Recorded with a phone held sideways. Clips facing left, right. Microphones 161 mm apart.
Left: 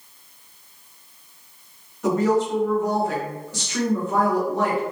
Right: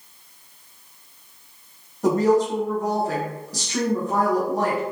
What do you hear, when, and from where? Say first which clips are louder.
2.0 s a woman speaking: right 2 dB; 35° right (ahead or behind), 1.2 m